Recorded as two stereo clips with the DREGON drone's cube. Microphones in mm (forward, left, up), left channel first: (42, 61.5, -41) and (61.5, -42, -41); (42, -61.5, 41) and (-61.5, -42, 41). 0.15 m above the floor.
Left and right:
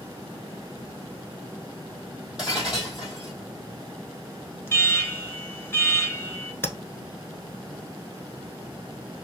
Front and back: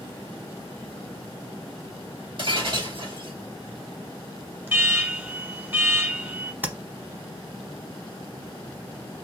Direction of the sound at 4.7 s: 125° left.